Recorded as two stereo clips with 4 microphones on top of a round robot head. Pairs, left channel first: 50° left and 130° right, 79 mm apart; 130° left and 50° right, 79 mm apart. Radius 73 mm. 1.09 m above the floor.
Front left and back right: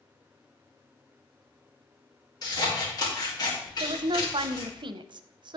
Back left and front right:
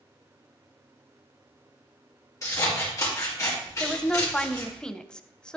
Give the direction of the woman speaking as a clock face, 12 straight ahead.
5 o'clock.